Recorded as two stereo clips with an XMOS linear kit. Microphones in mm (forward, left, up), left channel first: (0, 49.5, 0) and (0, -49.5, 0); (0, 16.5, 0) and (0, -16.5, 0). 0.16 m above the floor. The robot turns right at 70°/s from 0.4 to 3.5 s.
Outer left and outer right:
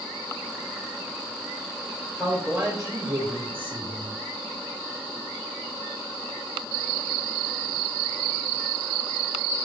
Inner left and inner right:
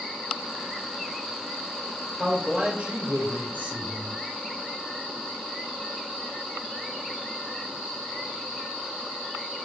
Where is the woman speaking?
170° left, 3.5 m; by 4.2 s 95° right, 3.5 m.